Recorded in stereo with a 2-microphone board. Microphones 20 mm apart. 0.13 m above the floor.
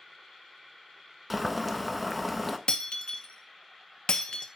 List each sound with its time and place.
1.3 s boiling: centre (ahead or behind), 0.6 m
2.7 s breaking glass: 65° left (ahead or behind), 0.6 m